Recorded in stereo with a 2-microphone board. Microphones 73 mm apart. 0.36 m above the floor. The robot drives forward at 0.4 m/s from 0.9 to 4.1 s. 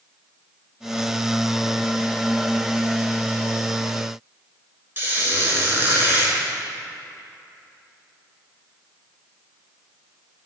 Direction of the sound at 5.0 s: 30° right (ahead or behind).